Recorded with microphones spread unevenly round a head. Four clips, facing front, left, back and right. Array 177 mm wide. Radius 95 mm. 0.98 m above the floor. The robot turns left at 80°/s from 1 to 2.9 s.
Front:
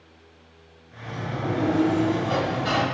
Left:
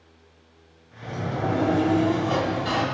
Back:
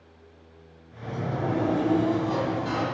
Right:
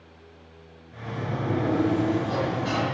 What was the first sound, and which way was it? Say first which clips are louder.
A sliding door: left 2 dB, back 1 dB; 135° left.